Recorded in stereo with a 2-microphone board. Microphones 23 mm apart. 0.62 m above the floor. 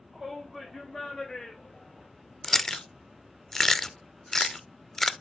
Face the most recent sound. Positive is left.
turn(degrees=15)  # may be behind; listen again after turning